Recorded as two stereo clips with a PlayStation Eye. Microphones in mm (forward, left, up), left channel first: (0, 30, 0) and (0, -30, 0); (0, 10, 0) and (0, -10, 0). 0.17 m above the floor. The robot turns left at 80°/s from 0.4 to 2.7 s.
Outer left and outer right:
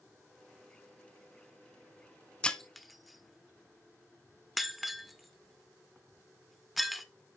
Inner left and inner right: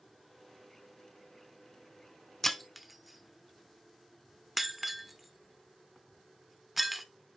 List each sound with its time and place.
2.4 s breaking glass: 20° left (ahead or behind), 0.6 m; by 7.0 s centre (ahead or behind), 0.6 m